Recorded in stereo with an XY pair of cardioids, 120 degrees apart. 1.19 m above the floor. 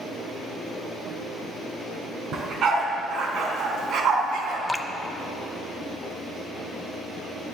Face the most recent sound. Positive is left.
turn(degrees=5)